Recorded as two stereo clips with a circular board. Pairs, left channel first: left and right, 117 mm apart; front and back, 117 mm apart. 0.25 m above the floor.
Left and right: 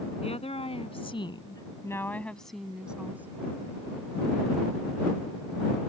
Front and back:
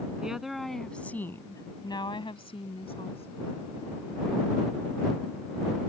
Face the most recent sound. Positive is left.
turn(degrees=-20)